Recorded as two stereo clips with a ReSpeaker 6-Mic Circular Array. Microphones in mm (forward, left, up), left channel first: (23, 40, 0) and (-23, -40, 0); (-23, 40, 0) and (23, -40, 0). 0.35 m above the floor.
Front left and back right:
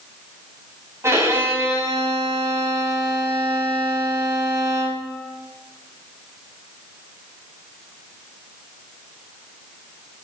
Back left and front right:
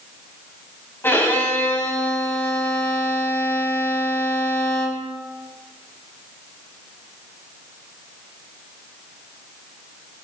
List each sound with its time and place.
1.0 s a violin: 175° right, 2 m